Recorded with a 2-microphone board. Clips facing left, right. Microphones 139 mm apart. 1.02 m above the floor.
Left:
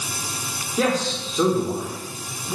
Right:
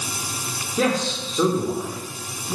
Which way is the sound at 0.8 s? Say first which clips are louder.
Even; centre (ahead or behind).